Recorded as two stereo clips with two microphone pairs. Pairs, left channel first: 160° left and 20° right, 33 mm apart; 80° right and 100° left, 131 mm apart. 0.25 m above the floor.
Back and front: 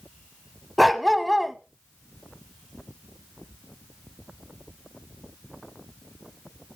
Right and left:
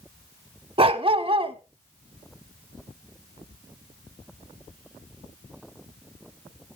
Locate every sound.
0.8 s a dog barking: 70° left, 0.7 m